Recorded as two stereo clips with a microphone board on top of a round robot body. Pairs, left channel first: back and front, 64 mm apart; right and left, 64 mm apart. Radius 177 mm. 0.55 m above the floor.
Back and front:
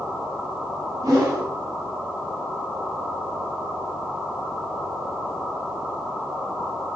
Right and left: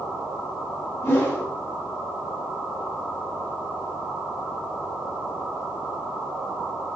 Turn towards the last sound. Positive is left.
turn(degrees=-35)